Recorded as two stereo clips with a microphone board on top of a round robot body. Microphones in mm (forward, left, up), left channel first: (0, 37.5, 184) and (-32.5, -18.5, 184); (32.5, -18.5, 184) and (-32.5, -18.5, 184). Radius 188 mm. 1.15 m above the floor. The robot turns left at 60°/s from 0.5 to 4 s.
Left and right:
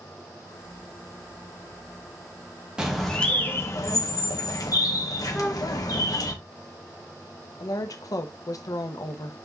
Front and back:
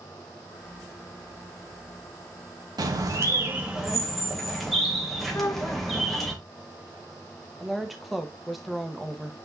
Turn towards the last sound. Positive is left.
turn(degrees=90)